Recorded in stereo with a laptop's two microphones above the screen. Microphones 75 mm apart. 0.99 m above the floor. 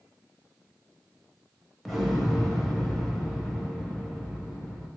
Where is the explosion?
5° left (ahead or behind), 0.9 m.